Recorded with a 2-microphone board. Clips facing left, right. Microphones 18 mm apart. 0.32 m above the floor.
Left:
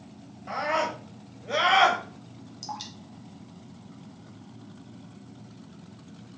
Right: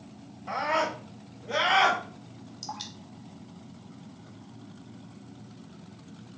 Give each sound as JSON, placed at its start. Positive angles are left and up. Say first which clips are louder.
{"t": 0.5, "sound": "a scream", "louder": "even", "side_deg": 10, "distance_m": 1.8}
{"t": 2.6, "sound": "dripping", "louder": "left 1 dB", "side_deg": 0, "distance_m": 0.9}